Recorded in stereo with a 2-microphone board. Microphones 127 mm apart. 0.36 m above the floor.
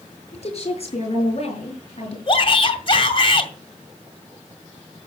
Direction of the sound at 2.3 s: 40° left (ahead or behind).